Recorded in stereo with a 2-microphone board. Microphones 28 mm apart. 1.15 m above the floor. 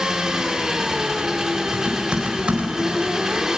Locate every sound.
0.0 s an engine running: 20° right (ahead or behind), 3 m
1.7 s typing on a keyboard: 45° right (ahead or behind), 4 m